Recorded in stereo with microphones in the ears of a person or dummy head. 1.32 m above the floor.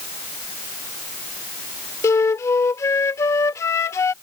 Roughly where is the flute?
Centre.